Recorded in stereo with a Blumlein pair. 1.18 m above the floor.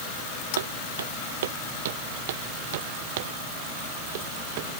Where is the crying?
I don't hear crying.